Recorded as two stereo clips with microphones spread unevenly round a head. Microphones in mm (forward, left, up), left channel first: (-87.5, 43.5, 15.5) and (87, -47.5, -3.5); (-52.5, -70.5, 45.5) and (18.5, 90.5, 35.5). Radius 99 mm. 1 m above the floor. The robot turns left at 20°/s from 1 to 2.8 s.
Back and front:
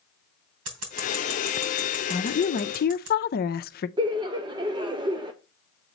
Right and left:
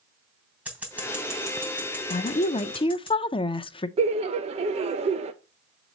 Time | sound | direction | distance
0.7 | scissors | 15° right | 3 m
2.1 | a woman speaking | 155° right | 0.6 m
4.0 | laughter | 30° left | 0.6 m